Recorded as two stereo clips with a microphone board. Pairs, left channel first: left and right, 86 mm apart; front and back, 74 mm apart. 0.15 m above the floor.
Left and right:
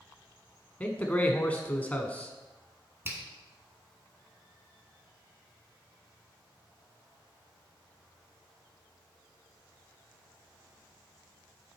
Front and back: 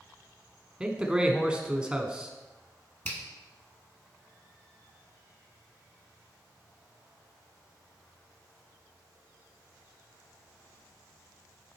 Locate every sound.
0.8 s a man speaking: 130° left, 1.1 m
3.0 s a finger snap: 55° right, 1.7 m